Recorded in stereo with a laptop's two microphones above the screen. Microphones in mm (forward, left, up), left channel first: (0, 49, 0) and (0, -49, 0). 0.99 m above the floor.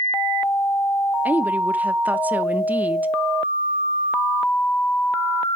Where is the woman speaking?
15° right (ahead or behind), 0.7 m.